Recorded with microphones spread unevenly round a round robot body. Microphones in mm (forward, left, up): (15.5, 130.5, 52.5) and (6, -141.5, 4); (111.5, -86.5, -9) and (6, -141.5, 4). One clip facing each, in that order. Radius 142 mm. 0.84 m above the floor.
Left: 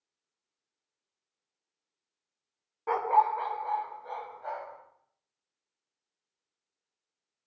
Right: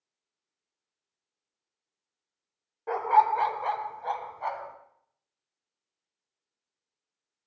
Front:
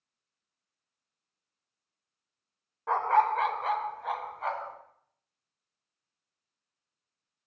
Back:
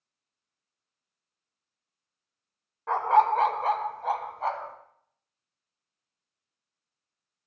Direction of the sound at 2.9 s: 125° left.